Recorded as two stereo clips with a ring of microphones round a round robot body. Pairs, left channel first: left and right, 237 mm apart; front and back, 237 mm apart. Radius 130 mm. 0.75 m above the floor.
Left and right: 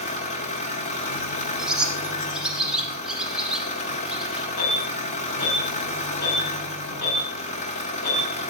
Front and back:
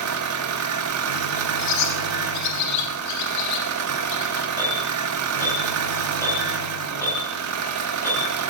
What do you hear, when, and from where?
0.0 s an engine running: 155° left, 1.0 m
1.6 s a bird: 5° right, 1.6 m
4.6 s an alarm: 80° left, 6 m